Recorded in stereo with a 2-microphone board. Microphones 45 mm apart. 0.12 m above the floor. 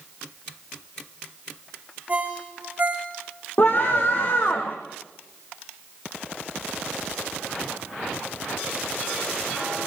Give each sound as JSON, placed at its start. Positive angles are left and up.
{"t": 2.1, "sound": "a ringtone", "side_deg": -35, "distance_m": 5.0}
{"t": 3.6, "sound": "a scream", "side_deg": 50, "distance_m": 4.0}